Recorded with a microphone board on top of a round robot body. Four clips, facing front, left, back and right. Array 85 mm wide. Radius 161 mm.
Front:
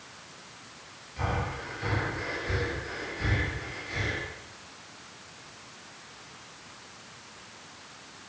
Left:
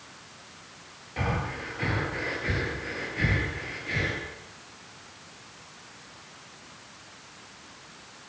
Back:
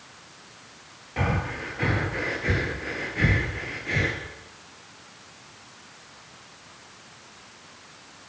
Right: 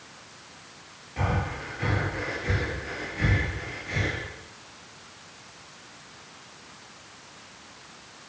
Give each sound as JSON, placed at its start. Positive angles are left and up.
{"t": 1.2, "sound": "breathing", "azimuth_deg": 170, "distance_m": 5.0}